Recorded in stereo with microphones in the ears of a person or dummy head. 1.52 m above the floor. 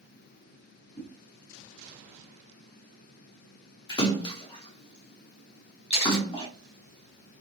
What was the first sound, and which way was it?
A whoosh, 30° left (ahead or behind).